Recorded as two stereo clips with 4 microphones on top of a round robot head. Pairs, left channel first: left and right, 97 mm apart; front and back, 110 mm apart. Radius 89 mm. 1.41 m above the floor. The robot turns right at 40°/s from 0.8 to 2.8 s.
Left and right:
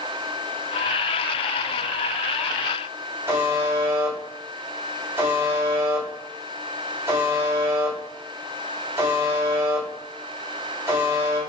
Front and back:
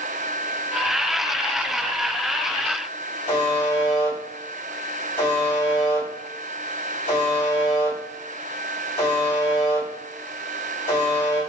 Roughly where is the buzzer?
Ahead right.